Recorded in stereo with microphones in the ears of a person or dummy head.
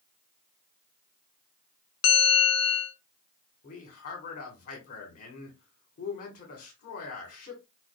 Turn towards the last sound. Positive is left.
turn(degrees=50)  # may be behind; listen again after turning